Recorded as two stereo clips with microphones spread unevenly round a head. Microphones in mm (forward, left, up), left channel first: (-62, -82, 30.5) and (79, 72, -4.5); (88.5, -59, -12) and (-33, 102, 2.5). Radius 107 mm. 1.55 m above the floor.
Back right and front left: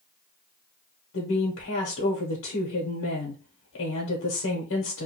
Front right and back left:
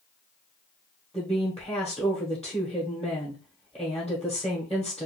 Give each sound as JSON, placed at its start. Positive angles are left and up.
{"t": 1.1, "sound": "a woman speaking", "azimuth_deg": -140, "distance_m": 0.8}